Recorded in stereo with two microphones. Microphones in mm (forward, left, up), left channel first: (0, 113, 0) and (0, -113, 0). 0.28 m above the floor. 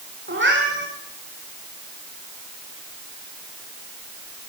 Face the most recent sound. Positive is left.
turn(degrees=-55)  # may be behind; listen again after turning